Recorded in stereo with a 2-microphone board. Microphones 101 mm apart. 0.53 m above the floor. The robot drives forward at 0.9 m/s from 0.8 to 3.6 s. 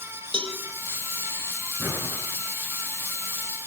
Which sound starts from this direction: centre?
Breathing, at 1.8 s.